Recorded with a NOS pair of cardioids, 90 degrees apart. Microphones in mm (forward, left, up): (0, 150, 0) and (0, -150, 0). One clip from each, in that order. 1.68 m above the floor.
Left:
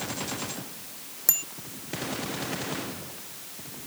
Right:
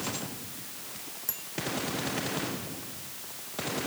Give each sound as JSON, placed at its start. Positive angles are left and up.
{"t": 1.3, "sound": "a bicycle bell", "azimuth_deg": 65}